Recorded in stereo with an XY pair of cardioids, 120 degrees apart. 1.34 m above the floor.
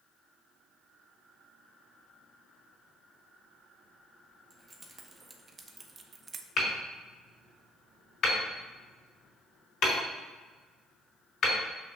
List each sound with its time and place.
4.5 s keys jangling: 15° right, 1.6 m; by 6.5 s 40° right, 0.7 m
6.6 s hammering: 45° left, 4 m